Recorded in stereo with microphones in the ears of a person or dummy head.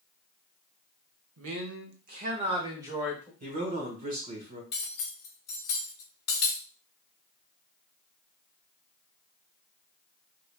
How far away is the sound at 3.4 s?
About 1.2 m.